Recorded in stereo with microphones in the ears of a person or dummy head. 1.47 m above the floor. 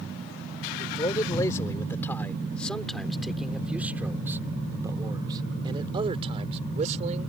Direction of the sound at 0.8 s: 25° left (ahead or behind).